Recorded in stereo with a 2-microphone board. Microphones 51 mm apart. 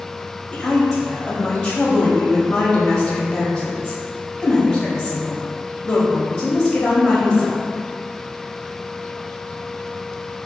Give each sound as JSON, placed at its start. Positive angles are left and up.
{"t": 0.5, "sound": "a woman speaking", "side_deg": 15, "distance_m": 0.9}